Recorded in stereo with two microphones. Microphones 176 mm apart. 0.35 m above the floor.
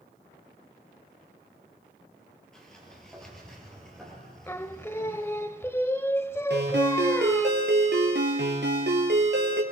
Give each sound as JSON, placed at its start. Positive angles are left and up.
{"t": 2.5, "sound": "a sliding door", "side_deg": 5, "distance_m": 5.0}
{"t": 4.5, "sound": "singing", "side_deg": 15, "distance_m": 0.5}
{"t": 6.5, "sound": "a ringtone", "side_deg": -75, "distance_m": 3.0}